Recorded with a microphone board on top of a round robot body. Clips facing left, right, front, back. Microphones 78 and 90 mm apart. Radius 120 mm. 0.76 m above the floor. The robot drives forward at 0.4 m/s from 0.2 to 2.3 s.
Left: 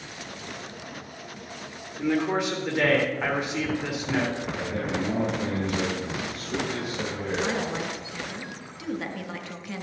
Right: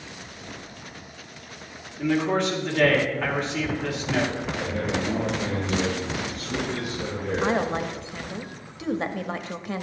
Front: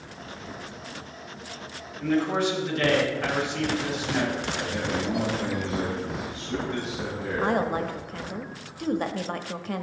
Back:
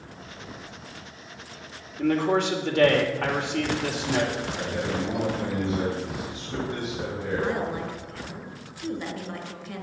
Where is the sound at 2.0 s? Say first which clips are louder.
Right 2 dB, back 2 dB; 170° left, 2.5 m.